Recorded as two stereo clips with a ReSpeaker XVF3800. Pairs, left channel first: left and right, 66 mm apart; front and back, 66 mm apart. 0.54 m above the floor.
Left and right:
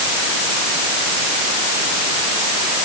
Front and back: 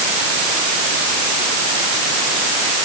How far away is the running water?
No running water in this recording.